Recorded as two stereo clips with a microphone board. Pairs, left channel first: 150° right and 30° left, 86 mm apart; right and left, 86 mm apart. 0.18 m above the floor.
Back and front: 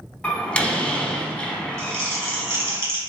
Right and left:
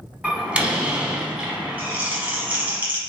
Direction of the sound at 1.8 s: 40° left.